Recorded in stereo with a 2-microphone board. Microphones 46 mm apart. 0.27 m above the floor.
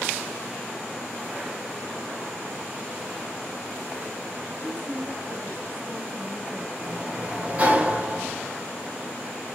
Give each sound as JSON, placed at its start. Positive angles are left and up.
{"t": 4.6, "sound": "a woman speaking", "side_deg": -60, "distance_m": 3.5}
{"t": 6.8, "sound": "a sliding door", "side_deg": -30, "distance_m": 1.9}